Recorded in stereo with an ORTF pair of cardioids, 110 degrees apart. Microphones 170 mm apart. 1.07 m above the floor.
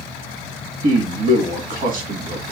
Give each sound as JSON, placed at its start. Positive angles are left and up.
{"t": 0.8, "sound": "a man speaking", "azimuth_deg": -55, "distance_m": 1.0}